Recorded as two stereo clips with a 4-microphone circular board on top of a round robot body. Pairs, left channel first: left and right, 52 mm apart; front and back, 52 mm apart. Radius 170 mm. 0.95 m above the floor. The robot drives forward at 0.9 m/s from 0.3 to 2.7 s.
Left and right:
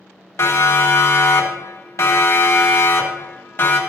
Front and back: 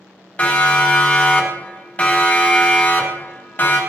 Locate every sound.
0.4 s a siren: 60° left, 3.5 m; by 3.8 s 50° left, 3.5 m